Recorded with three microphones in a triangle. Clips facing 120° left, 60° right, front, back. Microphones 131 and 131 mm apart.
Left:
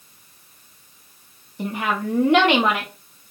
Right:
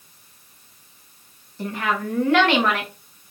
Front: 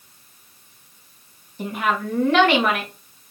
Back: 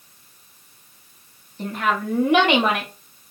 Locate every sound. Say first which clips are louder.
1.6 s a woman speaking: left 1 dB, even; 65° left, 1.1 m; by 2.9 s straight behind, 1.1 m